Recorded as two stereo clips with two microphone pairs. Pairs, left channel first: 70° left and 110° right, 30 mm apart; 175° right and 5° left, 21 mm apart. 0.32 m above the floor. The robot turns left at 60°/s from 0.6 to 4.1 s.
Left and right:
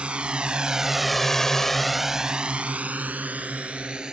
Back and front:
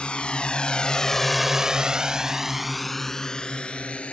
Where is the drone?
155° right; by 4.1 s 175° right.